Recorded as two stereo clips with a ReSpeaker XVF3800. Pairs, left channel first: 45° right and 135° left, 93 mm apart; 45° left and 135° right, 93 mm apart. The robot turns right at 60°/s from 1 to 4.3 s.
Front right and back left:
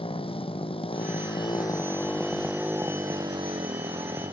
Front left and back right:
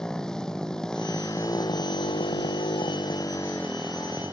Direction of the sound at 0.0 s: 40° right.